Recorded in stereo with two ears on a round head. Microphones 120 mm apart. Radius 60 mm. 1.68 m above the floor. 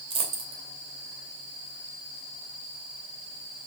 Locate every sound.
0.1 s a dropped coin: 40° right (ahead or behind), 2.5 m